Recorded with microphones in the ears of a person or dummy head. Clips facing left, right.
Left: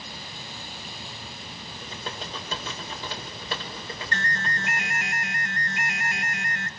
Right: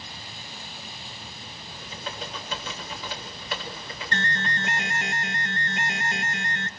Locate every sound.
1.7 s typing on a keyboard: 35° left (ahead or behind), 5.5 m
4.1 s an alarm: 25° right (ahead or behind), 0.8 m